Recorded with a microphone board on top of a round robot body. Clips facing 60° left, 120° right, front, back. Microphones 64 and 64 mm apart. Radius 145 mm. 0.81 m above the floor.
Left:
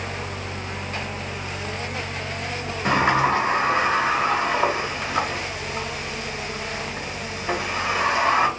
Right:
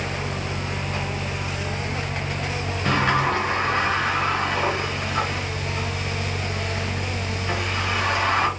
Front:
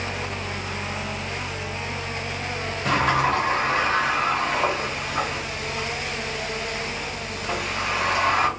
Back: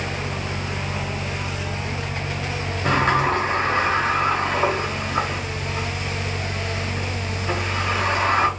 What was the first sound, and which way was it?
A sliding door, 125° left.